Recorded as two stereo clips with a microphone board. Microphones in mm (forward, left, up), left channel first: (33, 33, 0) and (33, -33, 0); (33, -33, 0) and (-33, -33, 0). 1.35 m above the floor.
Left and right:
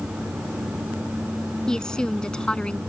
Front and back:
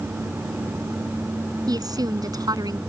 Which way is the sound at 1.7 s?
170° left.